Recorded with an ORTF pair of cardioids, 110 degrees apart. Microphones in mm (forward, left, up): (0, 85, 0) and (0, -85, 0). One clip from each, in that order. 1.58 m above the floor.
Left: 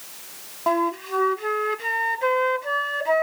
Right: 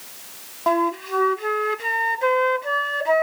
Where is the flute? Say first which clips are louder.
Right 2 dB; 10° right.